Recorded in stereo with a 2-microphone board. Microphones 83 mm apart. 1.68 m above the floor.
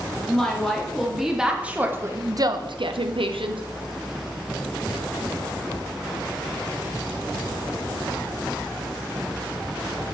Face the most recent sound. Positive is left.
turn(degrees=-70)  # may be behind; listen again after turning